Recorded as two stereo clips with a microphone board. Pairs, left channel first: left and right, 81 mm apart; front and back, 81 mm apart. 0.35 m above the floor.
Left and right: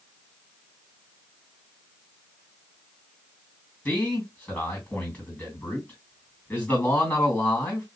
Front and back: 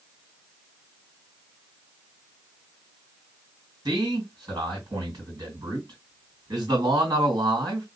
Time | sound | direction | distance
3.9 | a man speaking | 150° left | 2.5 m